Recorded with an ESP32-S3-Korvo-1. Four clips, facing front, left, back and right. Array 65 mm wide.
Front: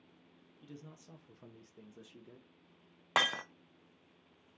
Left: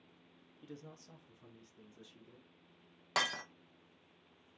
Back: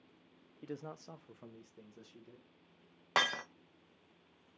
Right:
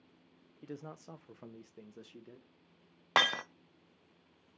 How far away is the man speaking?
About 0.7 m.